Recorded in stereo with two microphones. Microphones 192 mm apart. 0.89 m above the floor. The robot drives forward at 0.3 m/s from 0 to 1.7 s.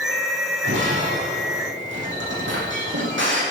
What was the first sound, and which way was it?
Breaking glass, 85° right.